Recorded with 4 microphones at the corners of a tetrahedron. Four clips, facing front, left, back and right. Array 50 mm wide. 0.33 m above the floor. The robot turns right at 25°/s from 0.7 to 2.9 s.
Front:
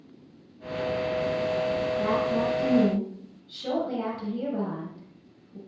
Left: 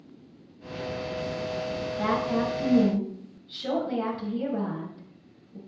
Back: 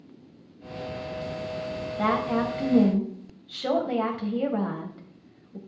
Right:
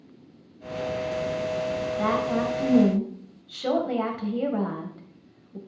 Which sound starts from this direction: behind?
A woman speaking, at 2.0 s.